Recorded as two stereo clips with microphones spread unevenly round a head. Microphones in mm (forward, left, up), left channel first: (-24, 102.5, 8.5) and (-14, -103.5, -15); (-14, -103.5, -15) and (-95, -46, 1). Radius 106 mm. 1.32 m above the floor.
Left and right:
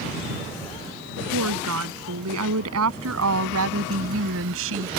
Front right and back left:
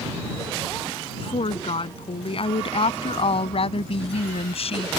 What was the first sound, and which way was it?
A woman speaking, 65° right.